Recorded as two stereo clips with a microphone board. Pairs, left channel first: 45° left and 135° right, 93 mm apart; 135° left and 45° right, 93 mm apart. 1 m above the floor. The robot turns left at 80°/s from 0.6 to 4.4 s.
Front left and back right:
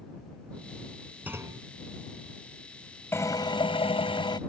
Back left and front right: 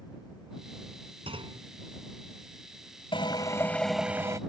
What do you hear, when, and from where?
1.3 s a clunk: 60° right; by 1.7 s 95° right
3.1 s a drill: 110° left; by 4.4 s 10° left